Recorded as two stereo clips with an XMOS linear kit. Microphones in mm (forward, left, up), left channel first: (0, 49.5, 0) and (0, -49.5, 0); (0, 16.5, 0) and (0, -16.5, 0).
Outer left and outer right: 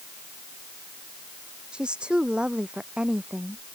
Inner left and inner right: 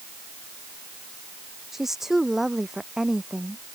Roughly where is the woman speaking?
Centre.